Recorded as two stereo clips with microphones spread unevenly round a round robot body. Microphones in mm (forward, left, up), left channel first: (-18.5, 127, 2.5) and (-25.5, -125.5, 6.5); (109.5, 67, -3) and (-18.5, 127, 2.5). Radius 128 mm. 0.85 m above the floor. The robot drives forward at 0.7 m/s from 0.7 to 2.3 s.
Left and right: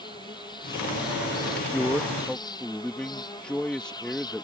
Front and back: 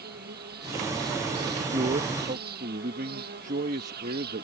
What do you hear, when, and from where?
0.0 s an insect: 160° left; by 4.5 s 165° left
1.5 s a man speaking: 165° left; by 4.5 s 175° left